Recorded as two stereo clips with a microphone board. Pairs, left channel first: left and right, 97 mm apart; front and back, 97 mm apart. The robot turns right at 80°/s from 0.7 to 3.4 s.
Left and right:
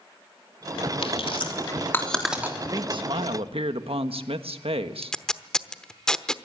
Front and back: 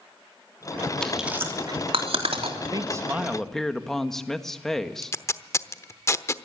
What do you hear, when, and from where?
1.0 s chewing: 85° left, 3 m; by 2.6 s 155° right, 3 m
2.7 s a man speaking: 140° right, 1.5 m; by 5.2 s 85° right, 1.5 m
5.0 s tape being pulled: 15° left, 0.9 m